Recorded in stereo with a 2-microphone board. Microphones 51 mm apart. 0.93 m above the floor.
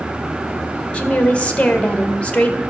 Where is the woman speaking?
25° left (ahead or behind), 0.9 m.